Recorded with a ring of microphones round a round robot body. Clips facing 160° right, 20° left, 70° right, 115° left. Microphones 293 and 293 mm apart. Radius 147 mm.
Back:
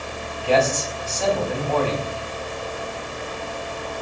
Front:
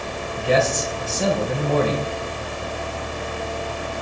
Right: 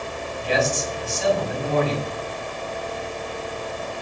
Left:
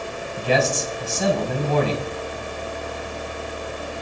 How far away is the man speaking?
About 5 m.